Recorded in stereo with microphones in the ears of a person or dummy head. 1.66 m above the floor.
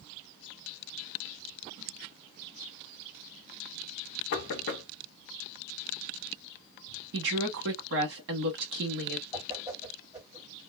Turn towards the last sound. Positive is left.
turn(degrees=-15)  # may be behind; listen again after turning